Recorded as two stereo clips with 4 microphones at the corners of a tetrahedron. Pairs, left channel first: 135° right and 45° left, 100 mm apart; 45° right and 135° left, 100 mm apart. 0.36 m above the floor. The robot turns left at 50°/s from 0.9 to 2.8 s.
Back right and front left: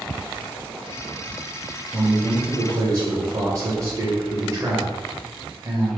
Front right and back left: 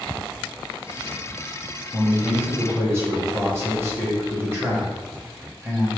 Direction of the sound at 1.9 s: 130° left.